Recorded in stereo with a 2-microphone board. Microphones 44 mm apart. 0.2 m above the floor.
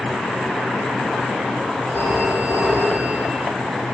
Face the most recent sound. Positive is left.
turn(degrees=-55)  # may be behind; listen again after turning